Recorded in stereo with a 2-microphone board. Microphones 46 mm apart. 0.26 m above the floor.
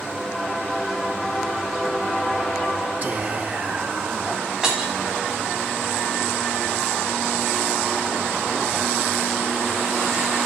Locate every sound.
3.0 s whispering: 40° right (ahead or behind), 3.5 m
4.6 s breaking glass: 10° right (ahead or behind), 4.5 m